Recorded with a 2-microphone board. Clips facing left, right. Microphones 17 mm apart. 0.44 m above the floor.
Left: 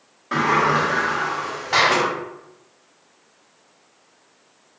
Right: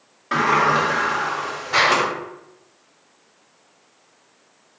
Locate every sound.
0.3 s a sliding door: 15° right (ahead or behind), 0.8 m
1.7 s a clap: 45° left (ahead or behind), 1.6 m